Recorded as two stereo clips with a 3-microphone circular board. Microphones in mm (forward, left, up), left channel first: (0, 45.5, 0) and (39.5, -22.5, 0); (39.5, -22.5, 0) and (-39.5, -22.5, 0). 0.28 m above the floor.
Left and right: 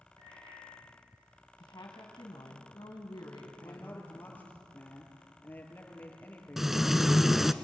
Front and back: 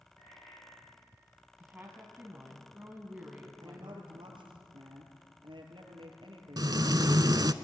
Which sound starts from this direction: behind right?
Frying, at 6.6 s.